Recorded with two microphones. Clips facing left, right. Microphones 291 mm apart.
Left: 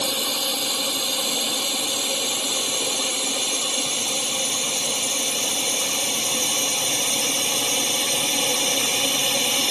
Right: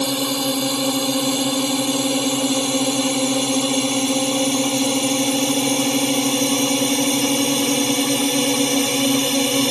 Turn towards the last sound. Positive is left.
turn(degrees=-60)  # may be behind; listen again after turning